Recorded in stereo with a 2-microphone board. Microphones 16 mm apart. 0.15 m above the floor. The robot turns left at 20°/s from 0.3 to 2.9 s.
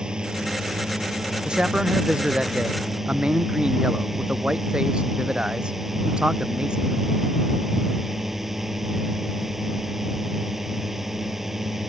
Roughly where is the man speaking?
Right.